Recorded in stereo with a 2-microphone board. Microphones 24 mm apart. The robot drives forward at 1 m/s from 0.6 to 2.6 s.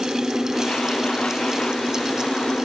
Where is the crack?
No crack in this recording.